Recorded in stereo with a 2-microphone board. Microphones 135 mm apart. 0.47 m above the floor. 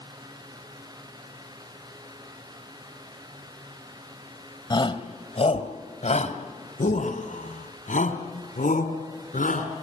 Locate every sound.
4.7 s a shout: 35° left (ahead or behind), 2 m; by 9.8 s 80° left, 4.5 m